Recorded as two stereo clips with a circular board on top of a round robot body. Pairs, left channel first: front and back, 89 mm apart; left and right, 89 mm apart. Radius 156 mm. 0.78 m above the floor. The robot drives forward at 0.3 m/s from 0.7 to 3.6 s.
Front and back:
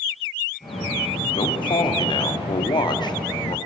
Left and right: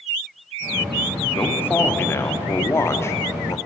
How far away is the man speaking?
About 2.5 m.